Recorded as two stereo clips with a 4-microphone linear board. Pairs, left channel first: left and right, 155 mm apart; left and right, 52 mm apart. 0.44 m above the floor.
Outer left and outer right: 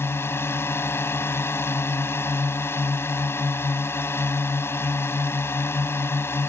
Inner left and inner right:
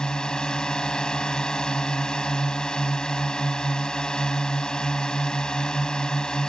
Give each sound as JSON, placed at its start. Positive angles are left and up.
{"t": 0.0, "sound": "a drone", "side_deg": 15}